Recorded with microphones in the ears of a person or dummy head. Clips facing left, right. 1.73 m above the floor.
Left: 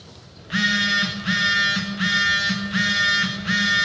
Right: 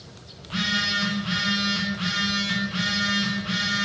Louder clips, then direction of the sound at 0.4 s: Left 4 dB; 20° left (ahead or behind).